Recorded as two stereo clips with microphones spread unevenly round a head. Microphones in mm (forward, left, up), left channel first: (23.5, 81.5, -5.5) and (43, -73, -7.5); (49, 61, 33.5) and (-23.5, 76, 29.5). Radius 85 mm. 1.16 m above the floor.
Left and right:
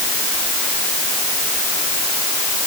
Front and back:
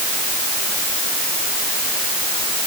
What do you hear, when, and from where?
Only background noise.